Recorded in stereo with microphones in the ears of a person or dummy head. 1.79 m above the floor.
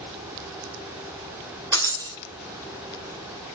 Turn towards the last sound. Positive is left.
turn(degrees=-20)  # may be behind; listen again after turning